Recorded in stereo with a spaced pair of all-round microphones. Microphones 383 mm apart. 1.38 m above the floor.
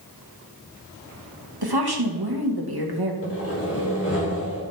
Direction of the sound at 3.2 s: 40° left (ahead or behind).